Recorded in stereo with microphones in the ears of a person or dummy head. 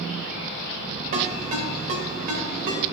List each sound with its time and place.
1.1 s a ringtone: 50° right (ahead or behind), 3 m